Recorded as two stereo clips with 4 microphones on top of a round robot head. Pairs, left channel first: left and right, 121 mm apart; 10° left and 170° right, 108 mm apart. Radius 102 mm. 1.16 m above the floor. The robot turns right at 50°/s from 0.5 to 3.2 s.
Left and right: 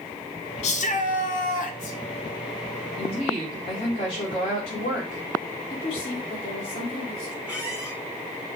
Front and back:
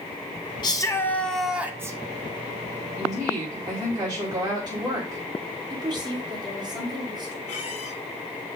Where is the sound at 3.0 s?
125° left, 3.5 m; by 5.2 s 140° left, 3.5 m.